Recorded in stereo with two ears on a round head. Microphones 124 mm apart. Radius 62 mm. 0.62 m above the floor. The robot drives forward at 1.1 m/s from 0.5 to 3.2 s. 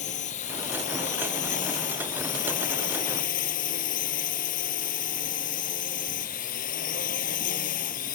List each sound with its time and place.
0.0 s a drone: 55° left (ahead or behind); by 8.2 s 65° left (ahead or behind)